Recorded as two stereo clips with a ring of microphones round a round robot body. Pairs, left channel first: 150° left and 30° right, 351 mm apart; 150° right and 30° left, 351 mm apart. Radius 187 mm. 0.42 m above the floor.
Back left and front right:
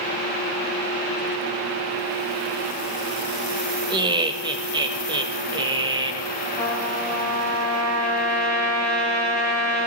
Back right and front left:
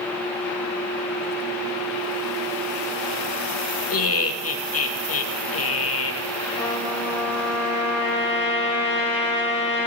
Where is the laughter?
105° right, 2 m.